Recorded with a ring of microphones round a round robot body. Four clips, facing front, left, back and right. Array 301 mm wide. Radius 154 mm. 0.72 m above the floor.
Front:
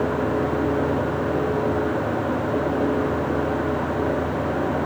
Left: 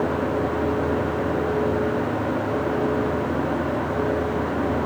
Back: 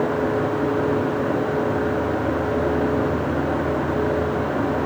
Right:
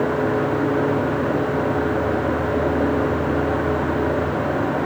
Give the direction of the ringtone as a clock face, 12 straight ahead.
No ringtone in this recording.